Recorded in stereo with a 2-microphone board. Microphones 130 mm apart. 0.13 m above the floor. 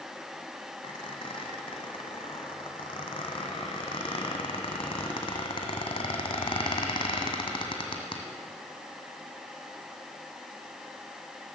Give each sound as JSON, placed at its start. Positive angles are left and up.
{"t": 0.8, "sound": "a squeak", "side_deg": 45, "distance_m": 1.8}